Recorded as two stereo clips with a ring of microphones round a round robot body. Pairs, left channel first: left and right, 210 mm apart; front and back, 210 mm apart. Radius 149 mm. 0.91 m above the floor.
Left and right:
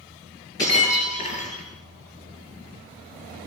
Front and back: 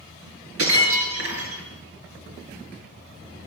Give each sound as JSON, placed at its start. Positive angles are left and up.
{"t": 0.6, "sound": "breaking glass", "azimuth_deg": 170, "distance_m": 8.0}